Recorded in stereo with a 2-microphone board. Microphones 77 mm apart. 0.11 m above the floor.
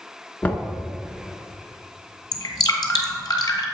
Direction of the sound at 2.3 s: 55° left (ahead or behind).